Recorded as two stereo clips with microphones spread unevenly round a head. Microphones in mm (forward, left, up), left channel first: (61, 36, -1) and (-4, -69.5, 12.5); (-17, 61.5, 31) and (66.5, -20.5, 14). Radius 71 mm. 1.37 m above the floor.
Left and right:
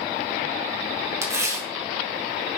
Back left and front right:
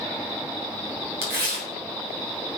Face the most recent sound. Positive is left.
turn(degrees=-60)